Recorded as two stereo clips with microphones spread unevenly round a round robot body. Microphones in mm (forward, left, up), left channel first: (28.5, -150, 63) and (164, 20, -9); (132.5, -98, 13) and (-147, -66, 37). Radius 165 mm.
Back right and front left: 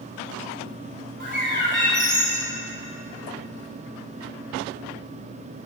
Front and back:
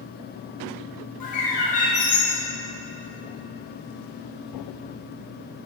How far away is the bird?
About 3 m.